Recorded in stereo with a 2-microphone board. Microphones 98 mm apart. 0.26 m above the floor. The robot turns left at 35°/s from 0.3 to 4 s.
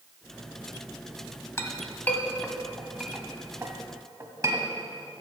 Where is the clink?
30° left (ahead or behind), 1.0 m; by 4.7 s 30° right (ahead or behind), 1.0 m.